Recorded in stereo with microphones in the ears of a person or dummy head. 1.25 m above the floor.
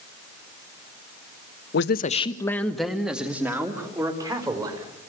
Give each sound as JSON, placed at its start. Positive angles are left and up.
{"t": 1.7, "sound": "a man speaking", "side_deg": 70, "distance_m": 1.0}